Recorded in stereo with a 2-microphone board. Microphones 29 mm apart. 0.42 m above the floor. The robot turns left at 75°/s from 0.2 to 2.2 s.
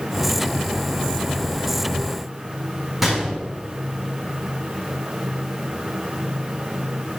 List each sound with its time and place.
3.0 s a gunshot: 5° right (ahead or behind), 4 m